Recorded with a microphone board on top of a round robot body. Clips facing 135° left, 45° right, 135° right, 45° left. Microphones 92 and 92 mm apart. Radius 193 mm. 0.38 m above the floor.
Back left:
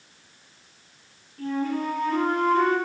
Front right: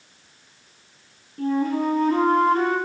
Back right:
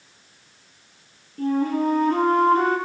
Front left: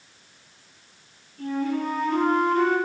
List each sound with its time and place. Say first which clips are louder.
1.4 s a flute: front right 5 dB, back right 5 dB; 95° right, 6 m